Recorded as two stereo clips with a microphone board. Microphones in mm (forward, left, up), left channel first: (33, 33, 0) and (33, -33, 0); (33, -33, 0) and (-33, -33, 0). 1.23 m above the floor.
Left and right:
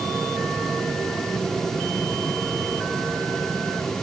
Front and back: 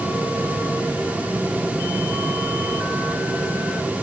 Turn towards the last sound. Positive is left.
No sound to turn to.